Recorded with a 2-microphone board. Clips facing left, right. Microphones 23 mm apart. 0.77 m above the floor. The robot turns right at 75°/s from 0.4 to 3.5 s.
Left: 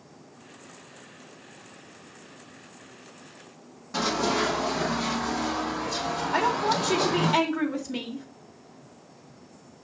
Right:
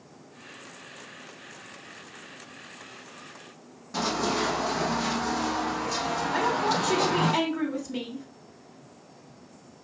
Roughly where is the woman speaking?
Left.